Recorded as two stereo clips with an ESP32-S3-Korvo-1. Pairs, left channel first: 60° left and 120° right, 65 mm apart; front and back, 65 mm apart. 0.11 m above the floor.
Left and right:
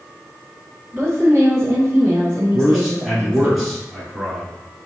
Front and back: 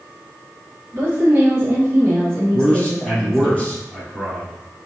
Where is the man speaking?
40° right, 1.6 m.